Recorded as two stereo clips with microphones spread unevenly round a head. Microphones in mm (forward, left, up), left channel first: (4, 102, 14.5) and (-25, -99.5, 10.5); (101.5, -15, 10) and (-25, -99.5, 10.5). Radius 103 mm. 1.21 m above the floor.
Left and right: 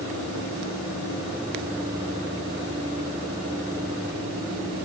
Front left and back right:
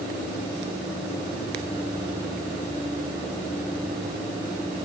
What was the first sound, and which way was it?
Only background noise.